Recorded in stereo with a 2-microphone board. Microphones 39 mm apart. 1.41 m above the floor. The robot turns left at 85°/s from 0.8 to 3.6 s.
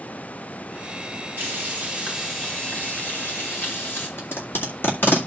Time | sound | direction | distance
1.4 | frying | 105° right | 6 m
4.2 | tape being pulled | 80° left | 2 m